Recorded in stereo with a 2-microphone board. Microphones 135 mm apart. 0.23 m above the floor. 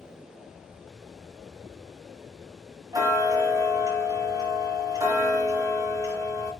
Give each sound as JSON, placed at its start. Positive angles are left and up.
{"t": 2.9, "sound": "ticking", "side_deg": -30, "distance_m": 1.6}